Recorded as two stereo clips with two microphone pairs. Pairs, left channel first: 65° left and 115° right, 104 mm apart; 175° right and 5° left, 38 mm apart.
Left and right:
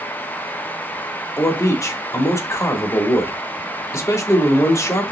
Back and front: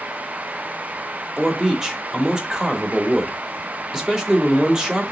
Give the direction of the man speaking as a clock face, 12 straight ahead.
10 o'clock.